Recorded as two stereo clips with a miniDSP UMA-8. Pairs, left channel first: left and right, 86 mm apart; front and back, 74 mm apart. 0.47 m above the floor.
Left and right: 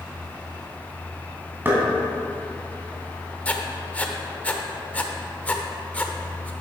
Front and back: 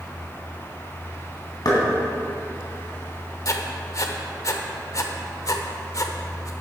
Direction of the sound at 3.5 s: 20° left.